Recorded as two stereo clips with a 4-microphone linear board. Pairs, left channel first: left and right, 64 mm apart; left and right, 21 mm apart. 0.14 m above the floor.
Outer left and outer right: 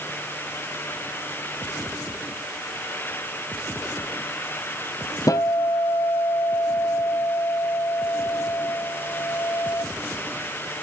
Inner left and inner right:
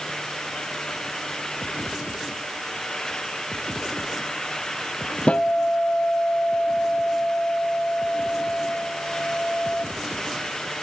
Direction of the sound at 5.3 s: 60° left (ahead or behind).